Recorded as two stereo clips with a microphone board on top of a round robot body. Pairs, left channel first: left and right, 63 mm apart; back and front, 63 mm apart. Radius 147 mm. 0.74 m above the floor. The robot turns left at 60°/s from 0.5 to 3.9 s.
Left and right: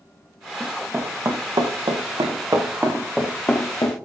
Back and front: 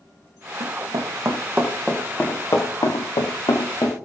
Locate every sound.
0.6 s running footsteps: 5° right, 3.5 m; by 3.9 s 130° left, 4 m